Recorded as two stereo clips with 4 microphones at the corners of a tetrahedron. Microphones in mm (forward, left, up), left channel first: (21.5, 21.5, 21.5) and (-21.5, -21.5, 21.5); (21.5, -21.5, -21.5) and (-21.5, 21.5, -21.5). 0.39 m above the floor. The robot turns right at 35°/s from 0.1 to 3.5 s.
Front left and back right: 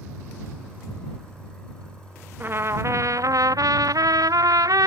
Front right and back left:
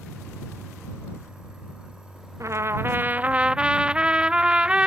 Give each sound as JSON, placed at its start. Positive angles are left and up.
{"t": 2.4, "sound": "a trumpet", "azimuth_deg": 170}